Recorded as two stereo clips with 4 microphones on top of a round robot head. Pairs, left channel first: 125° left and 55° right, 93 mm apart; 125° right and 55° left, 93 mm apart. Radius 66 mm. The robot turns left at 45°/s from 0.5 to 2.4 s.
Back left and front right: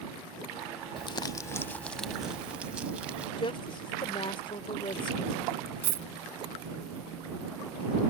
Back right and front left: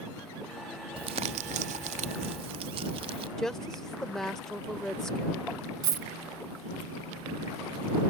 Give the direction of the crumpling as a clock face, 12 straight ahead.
9 o'clock.